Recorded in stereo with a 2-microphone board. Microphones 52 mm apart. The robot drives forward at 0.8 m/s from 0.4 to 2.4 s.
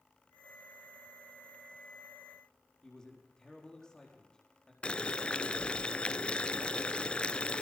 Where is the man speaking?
15° left (ahead or behind), 5 m.